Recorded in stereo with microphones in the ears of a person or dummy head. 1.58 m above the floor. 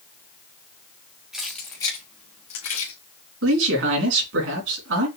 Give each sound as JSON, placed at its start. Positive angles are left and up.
{"t": 1.3, "sound": "keys jangling", "side_deg": 0, "distance_m": 0.8}
{"t": 3.4, "sound": "a man speaking", "side_deg": -85, "distance_m": 3.0}